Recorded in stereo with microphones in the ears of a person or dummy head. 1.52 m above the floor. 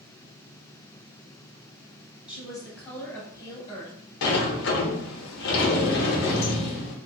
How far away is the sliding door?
About 0.8 m.